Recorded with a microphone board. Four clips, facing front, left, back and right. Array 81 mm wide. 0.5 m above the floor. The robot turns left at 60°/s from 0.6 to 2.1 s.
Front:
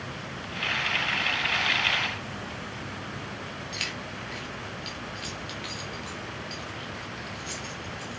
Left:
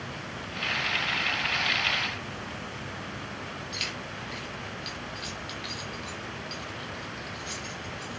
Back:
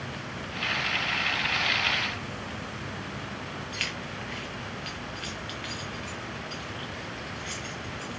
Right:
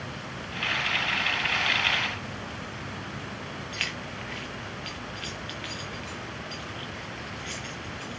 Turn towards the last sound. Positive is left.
turn(degrees=-105)